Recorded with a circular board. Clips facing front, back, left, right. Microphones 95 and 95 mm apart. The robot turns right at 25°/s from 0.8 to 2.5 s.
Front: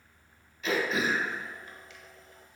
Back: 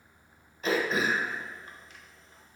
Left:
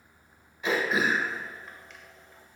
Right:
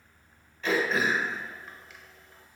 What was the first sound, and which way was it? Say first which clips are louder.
Throat clearing: back 1 dB, even; 160° left.